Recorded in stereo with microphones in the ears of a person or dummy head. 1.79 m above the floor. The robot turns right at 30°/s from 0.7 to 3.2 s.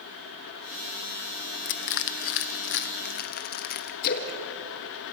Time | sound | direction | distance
1.6 | crushing | 65° left (ahead or behind) | 1.1 m
4.0 | a splash | 55° left (ahead or behind) | 1.8 m